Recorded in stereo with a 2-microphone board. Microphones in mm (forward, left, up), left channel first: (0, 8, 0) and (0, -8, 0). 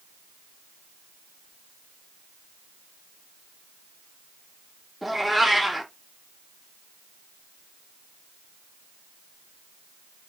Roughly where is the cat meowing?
Centre.